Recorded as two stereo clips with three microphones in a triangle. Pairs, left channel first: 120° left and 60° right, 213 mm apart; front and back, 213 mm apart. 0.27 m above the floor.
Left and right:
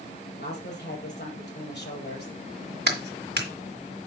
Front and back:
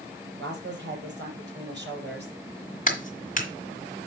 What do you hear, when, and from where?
0.4 s a woman speaking: 150° left, 6 m
2.9 s a clap: 45° right, 2.0 m